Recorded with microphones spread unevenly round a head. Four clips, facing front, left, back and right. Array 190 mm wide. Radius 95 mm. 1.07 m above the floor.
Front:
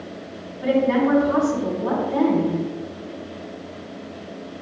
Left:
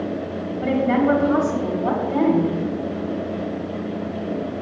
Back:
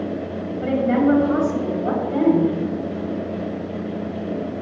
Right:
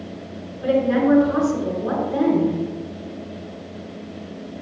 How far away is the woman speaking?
About 3 m.